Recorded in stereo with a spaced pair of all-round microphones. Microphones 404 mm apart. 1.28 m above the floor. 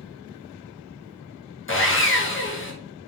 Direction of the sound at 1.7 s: 30° left (ahead or behind).